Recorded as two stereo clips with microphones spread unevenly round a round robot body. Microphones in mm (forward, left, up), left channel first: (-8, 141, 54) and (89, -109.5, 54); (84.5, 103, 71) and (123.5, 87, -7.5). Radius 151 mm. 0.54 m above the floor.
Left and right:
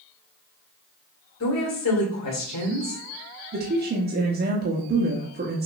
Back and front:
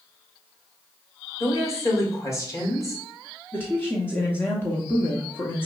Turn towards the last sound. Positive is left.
turn(degrees=-35)